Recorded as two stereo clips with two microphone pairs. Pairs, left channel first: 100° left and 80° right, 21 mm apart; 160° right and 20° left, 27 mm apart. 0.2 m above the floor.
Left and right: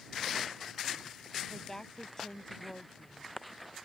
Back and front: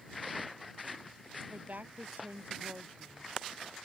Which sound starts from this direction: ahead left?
A woman speaking, at 1.5 s.